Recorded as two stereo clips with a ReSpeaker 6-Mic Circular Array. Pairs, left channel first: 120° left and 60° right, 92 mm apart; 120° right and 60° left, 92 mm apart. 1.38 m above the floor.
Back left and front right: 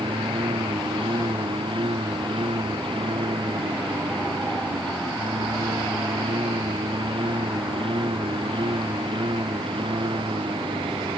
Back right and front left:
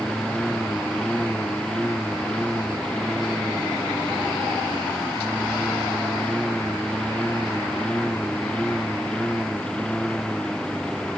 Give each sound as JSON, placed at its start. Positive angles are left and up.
{"t": 0.0, "sound": "a lawn mower", "azimuth_deg": -40}